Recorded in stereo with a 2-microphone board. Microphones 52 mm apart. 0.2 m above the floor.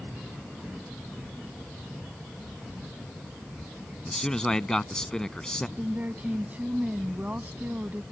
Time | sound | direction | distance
4.0 | a man speaking | 15° left (ahead or behind) | ?
5.8 | a woman speaking | 35° right (ahead or behind) | ?